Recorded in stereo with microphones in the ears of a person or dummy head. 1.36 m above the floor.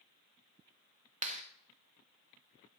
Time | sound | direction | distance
1.2 | a clap | 35° right (ahead or behind) | 1.0 m